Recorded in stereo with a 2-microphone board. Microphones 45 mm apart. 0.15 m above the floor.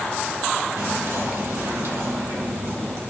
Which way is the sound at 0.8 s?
65° right (ahead or behind).